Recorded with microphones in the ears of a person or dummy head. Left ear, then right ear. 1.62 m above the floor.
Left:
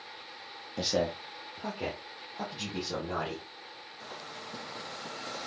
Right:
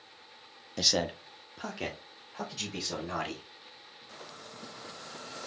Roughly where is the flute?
I don't hear a flute.